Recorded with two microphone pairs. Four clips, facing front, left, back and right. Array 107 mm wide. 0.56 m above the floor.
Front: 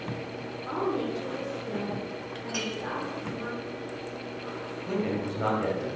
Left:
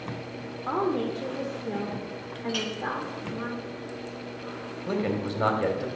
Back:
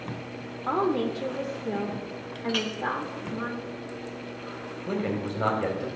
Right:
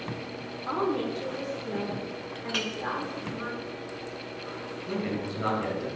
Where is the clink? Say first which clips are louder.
Left 2 dB, back 5 dB; 115° right, 1.3 m.